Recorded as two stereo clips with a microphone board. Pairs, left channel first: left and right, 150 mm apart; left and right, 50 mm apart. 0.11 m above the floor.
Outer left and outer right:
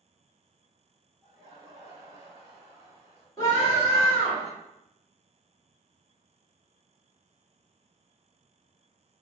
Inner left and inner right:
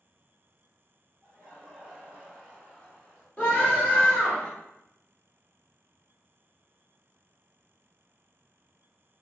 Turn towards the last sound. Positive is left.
turn(degrees=20)  # may be behind; listen again after turning